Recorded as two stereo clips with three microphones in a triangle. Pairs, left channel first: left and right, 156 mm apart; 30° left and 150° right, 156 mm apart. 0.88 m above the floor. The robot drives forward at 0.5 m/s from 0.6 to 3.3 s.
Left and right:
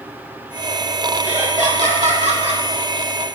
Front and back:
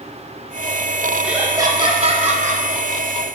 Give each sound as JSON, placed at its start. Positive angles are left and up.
{"t": 1.2, "sound": "laughter", "azimuth_deg": -65, "distance_m": 0.7}